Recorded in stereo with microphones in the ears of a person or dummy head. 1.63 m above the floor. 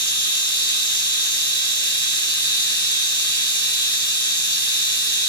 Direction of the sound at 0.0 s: 50° right (ahead or behind).